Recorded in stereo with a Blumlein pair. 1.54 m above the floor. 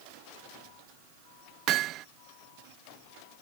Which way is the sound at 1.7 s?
35° right.